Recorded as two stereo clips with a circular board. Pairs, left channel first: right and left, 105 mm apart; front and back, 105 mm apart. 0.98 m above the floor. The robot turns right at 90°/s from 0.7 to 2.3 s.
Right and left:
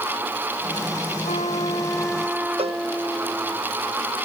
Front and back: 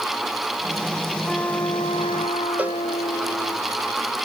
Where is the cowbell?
105° left.